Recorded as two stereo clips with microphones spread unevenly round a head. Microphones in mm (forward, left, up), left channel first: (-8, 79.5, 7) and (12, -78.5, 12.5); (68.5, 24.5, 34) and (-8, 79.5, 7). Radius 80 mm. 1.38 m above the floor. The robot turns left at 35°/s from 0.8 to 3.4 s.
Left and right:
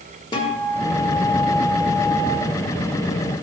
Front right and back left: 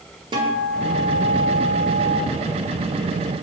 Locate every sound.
0.3 s a guitar: 135° left, 1.1 m; by 2.2 s 85° left, 1.1 m